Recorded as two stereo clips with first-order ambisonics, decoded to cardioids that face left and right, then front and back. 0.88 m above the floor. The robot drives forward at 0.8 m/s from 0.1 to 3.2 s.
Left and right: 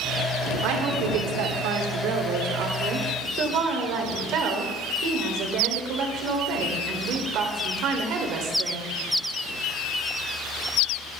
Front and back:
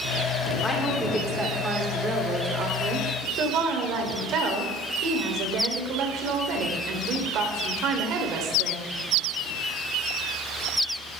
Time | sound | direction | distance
0.6 | a woman speaking | 75° right | 1.9 m